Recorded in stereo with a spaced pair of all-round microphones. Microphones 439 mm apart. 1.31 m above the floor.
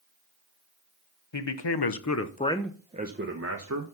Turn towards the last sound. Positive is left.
turn(degrees=-40)  # may be behind; listen again after turning